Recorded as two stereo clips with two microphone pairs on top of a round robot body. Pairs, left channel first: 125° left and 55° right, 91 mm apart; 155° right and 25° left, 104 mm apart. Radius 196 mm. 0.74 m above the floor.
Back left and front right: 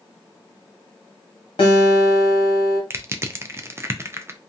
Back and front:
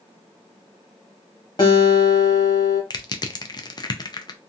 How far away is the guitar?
About 0.8 m.